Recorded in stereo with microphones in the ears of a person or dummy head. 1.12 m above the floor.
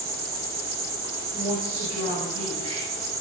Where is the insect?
15° right (ahead or behind), 0.9 m.